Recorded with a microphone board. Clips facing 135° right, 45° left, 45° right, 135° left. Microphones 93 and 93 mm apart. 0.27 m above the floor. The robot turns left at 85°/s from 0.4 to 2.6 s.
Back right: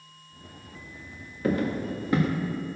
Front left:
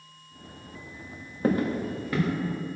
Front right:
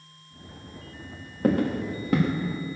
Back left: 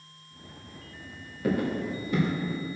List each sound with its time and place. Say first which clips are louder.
1.4 s footsteps: front left 1 dB, front right 4 dB; 5° right, 2 m; by 2.3 s 80° right, 2 m